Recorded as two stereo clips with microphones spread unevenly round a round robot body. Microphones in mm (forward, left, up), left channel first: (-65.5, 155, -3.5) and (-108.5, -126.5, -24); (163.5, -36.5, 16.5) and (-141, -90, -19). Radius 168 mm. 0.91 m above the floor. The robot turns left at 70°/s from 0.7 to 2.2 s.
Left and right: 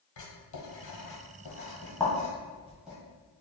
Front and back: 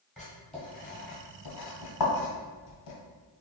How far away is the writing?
About 1.6 m.